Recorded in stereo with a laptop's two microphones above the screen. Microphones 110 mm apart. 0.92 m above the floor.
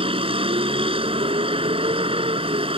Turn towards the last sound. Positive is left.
turn(degrees=-60)  # may be behind; listen again after turning